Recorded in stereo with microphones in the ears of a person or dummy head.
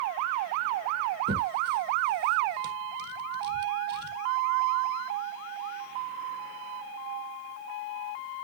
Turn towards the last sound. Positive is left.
turn(degrees=-55)  # may be behind; listen again after turning